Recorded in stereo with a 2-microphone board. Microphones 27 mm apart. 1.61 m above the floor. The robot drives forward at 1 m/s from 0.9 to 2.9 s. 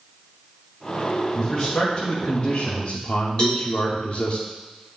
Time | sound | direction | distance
1.4 | a man speaking | 30° left (ahead or behind) | 1.8 m
3.4 | a cowbell | 35° left (ahead or behind) | 3.5 m